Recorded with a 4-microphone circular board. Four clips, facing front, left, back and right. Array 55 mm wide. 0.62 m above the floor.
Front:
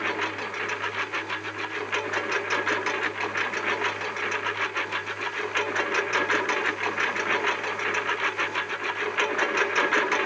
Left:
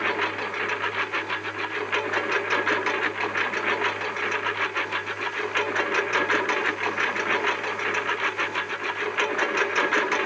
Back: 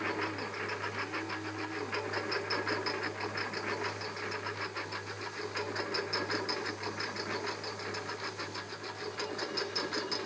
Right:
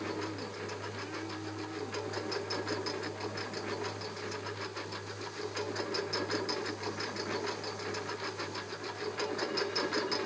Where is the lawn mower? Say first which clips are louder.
Left 12 dB, front 7 dB; 70° left; by 10.3 s 45° left.